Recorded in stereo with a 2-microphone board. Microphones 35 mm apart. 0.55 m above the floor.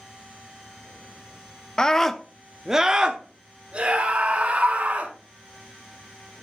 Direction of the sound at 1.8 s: 20° left (ahead or behind).